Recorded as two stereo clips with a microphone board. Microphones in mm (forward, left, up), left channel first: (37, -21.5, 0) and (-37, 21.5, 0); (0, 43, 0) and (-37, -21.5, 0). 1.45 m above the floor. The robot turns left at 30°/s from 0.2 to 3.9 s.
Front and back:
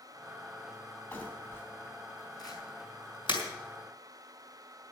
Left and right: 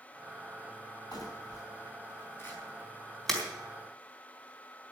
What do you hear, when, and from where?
1.1 s crumpling: 40° left, 3.5 m; by 3.5 s 30° right, 3.5 m